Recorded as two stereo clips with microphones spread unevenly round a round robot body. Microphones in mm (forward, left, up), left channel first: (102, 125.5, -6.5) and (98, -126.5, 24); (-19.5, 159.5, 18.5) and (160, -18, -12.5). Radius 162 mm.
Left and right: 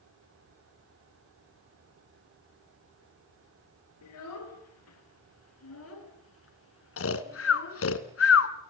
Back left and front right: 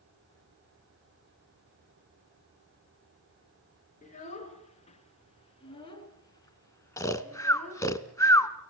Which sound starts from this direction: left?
A child speaking, at 4.0 s.